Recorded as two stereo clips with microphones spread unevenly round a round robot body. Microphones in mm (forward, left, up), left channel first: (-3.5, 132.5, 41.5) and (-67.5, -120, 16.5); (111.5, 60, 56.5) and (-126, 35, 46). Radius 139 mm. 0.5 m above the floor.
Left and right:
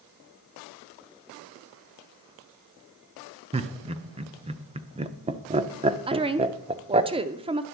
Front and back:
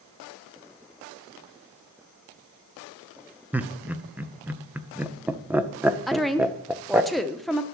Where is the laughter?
105° right, 0.7 m.